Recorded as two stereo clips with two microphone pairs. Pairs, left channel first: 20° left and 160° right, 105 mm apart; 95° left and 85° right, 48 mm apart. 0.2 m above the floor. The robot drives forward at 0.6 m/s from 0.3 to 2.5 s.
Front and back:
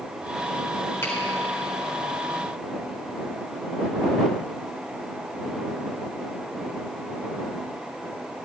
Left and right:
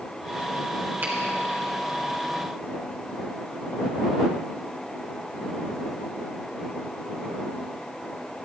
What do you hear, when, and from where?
1.0 s a finger snap: 45° right, 4.5 m